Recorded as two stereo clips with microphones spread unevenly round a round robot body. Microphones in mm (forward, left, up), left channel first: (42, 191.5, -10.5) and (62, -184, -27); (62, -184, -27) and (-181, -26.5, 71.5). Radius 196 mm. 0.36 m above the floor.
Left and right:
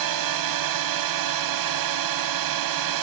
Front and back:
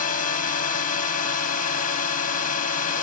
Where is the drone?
75° right.